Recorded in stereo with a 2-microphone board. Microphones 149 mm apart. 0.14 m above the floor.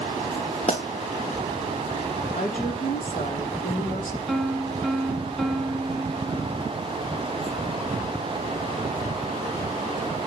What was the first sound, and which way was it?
A pop, 45° left (ahead or behind).